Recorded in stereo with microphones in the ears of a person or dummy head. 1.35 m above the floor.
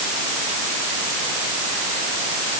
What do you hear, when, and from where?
Only background noise.